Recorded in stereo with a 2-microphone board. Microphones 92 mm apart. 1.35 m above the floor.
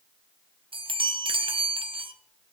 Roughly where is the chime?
Right.